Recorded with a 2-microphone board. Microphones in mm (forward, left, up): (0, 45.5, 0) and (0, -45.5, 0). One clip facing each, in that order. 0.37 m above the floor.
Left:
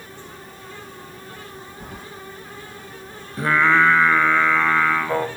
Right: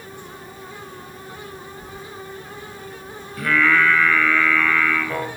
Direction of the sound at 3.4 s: 30° left (ahead or behind).